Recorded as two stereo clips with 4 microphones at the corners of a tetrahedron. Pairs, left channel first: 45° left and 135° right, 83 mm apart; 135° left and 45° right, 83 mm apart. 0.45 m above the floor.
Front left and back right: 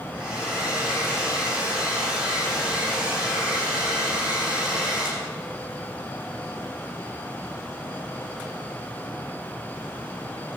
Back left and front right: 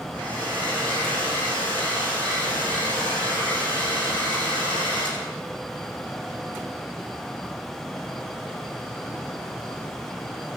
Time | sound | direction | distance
0.1 | a hair dryer | 60° right | 8.5 m